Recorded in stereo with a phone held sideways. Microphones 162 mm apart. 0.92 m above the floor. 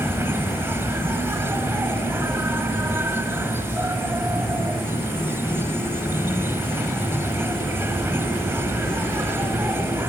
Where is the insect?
15° right (ahead or behind).